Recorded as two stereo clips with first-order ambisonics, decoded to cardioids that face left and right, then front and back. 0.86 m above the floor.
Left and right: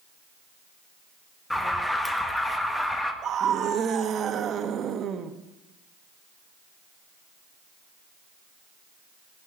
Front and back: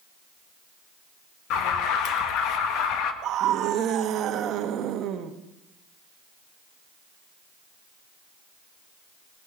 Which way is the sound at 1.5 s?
5° left.